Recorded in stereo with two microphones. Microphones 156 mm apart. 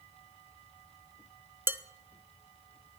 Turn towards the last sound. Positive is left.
turn(degrees=-15)  # may be behind; listen again after turning